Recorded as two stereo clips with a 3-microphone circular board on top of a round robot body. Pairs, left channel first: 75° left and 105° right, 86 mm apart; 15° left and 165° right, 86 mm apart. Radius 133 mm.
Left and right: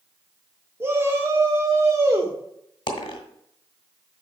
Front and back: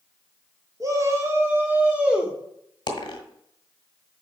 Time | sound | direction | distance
0.8 | a shout | 145° right | 1.5 m
2.9 | a dropped coin | 50° left | 1.5 m